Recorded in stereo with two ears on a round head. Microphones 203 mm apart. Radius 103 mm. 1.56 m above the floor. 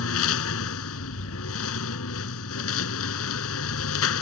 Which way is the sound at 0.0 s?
70° left (ahead or behind).